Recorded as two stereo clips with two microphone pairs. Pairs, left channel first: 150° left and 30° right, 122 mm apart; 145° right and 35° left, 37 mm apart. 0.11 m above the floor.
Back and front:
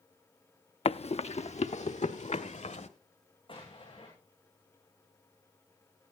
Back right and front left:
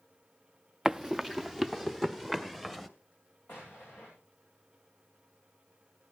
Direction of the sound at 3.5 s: 165° right.